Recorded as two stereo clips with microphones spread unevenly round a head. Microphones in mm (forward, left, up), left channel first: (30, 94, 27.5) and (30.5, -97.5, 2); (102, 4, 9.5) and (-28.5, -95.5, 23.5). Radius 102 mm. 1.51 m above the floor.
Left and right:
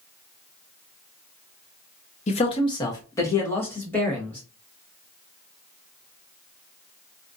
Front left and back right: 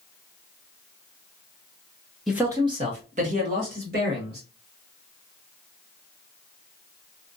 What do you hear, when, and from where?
2.3 s a man speaking: 130° left, 0.5 m; by 4.4 s 170° left, 1.9 m